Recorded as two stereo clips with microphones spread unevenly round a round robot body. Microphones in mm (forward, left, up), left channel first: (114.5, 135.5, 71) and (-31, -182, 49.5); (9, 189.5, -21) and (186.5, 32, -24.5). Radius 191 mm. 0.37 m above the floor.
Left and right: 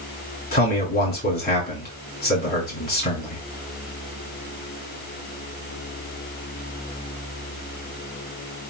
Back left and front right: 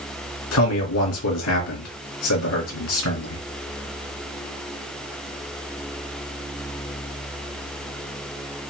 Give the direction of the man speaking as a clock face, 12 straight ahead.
8 o'clock.